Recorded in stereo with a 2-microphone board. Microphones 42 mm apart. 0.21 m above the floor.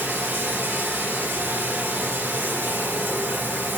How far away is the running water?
About 2.5 m.